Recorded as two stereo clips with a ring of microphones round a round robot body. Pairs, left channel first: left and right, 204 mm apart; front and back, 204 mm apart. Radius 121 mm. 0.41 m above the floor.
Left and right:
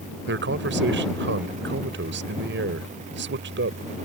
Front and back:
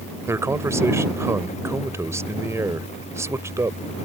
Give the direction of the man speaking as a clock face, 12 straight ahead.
4 o'clock.